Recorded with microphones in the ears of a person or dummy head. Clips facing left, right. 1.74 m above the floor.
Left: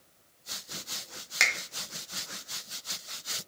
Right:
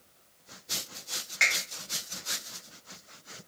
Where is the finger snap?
70° left (ahead or behind), 0.6 m.